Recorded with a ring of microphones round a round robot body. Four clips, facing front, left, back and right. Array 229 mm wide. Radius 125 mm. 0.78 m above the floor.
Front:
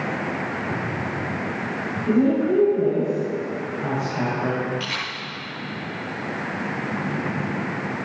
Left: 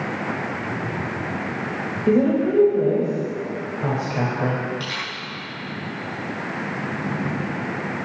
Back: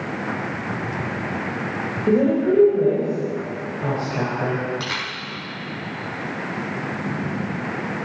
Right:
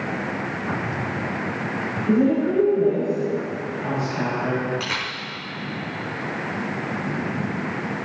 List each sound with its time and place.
2.1 s a woman speaking: 130° left, 4.5 m
4.8 s a camera shutter: 145° right, 5 m